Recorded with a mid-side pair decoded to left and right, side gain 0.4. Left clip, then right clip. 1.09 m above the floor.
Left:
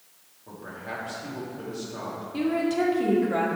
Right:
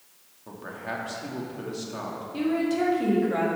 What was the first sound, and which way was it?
A man speaking, 50° right.